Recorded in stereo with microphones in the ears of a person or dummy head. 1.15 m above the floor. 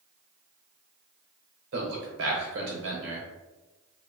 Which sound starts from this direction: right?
A man speaking, at 1.7 s.